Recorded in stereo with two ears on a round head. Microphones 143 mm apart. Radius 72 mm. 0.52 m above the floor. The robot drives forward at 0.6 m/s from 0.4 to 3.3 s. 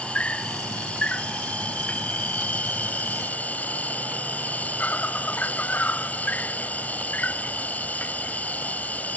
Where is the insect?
5° left (ahead or behind); by 9.2 s 10° left (ahead or behind).